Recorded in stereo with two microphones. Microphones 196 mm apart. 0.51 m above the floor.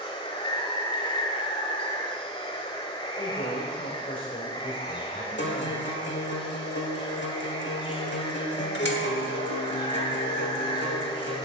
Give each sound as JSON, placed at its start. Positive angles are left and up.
{"t": 0.0, "sound": "running water", "side_deg": 25, "distance_m": 1.3}
{"t": 3.2, "sound": "a man speaking", "side_deg": 45, "distance_m": 1.8}
{"t": 5.4, "sound": "a guitar", "side_deg": 65, "distance_m": 1.1}